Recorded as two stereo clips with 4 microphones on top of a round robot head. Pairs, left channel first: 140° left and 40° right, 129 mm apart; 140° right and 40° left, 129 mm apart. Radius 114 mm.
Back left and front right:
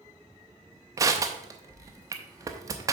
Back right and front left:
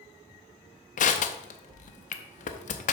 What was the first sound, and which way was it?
Crushing, 110° right.